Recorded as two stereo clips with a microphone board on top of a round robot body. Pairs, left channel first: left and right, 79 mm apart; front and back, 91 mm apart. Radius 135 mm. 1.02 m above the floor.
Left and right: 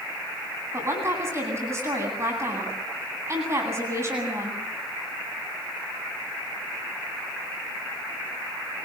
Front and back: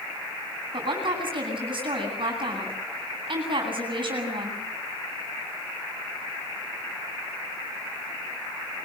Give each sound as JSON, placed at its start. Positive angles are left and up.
{"t": 0.7, "sound": "a woman speaking", "azimuth_deg": -145, "distance_m": 9.5}